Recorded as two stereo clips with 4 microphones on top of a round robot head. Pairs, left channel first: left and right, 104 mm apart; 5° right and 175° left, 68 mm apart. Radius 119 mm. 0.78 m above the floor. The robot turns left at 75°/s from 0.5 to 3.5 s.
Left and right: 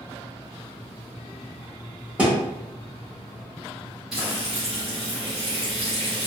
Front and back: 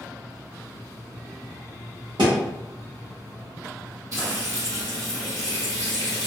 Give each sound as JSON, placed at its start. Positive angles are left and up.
{"t": 2.2, "sound": "a thud", "azimuth_deg": -165, "distance_m": 1.0}
{"t": 4.1, "sound": "frying", "azimuth_deg": -175, "distance_m": 0.6}